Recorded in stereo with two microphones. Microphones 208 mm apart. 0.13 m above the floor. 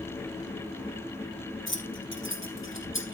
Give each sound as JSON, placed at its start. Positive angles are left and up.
{"t": 1.7, "sound": "keys jangling", "side_deg": 70, "distance_m": 3.0}